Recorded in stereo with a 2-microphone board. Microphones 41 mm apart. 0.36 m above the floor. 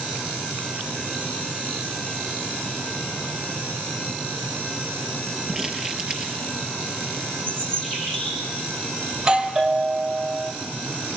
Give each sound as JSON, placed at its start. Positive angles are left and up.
{"t": 5.5, "sound": "crumpling", "side_deg": -20, "distance_m": 6.0}
{"t": 7.5, "sound": "a bird", "side_deg": 15, "distance_m": 7.5}
{"t": 9.1, "sound": "a doorbell", "side_deg": -15, "distance_m": 1.9}